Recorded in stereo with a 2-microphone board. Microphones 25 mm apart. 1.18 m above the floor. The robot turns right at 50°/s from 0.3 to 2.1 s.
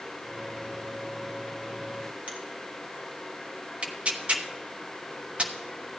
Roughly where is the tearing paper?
Right.